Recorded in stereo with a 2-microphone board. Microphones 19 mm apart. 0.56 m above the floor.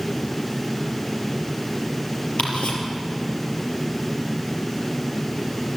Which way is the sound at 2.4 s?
90° left.